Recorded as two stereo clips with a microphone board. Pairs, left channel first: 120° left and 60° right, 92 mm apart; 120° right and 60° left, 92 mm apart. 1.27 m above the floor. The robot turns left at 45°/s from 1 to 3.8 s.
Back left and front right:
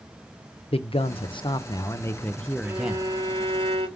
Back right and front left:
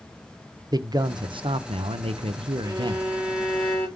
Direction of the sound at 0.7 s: 105° left.